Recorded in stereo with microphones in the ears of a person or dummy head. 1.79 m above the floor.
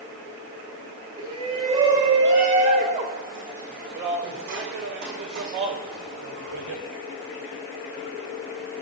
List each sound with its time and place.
1.2 s a shout: 40° right (ahead or behind), 6 m; by 6.8 s 80° right, 7 m